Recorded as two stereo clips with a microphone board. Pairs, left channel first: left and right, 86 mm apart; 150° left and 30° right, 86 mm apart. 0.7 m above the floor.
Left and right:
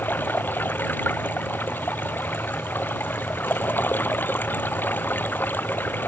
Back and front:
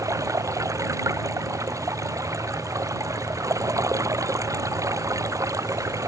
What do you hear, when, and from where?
0.0 s running water: 20° left